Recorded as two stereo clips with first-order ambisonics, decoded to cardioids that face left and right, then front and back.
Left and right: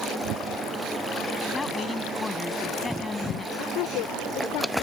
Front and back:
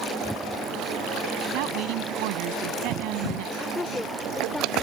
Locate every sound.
1.5 s a woman speaking: 170° left
3.5 s a woman speaking: 85° left